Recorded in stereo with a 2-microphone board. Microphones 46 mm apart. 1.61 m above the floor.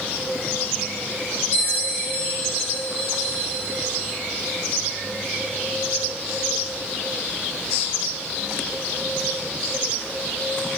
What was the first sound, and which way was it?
A bell, 40° left (ahead or behind).